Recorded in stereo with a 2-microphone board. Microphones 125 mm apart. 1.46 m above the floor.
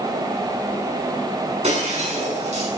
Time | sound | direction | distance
1.6 | breaking glass | 65° right (ahead or behind) | 7 m